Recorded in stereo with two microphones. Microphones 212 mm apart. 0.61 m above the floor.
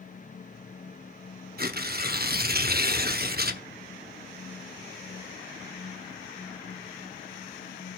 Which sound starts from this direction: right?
Tearing paper, at 1.6 s.